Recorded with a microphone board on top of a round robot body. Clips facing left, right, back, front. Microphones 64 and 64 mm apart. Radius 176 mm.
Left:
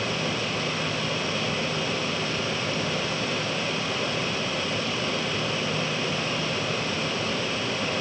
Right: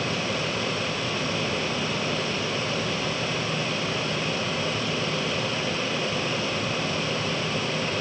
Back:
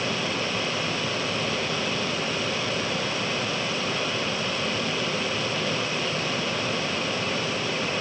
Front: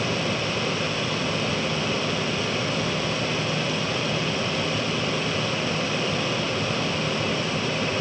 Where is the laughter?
No laughter in this recording.